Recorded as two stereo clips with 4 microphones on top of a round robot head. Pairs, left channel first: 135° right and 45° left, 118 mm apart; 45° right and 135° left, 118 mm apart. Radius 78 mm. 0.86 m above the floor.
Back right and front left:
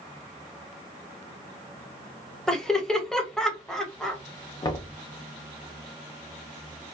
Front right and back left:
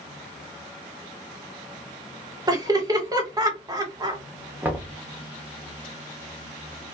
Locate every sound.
2.5 s laughter: 145° left, 0.8 m
4.6 s knocking: 160° right, 0.7 m